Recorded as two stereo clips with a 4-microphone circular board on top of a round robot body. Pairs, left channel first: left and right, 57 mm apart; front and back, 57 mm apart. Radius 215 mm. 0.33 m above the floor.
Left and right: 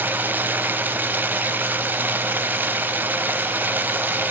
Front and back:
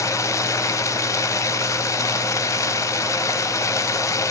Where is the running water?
30° right, 1.1 m.